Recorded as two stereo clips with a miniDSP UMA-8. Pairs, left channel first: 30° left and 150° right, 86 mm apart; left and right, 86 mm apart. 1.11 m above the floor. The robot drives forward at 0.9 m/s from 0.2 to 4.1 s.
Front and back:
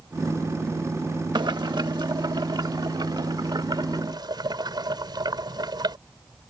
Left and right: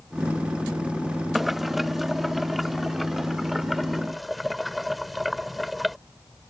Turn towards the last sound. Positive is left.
turn(degrees=180)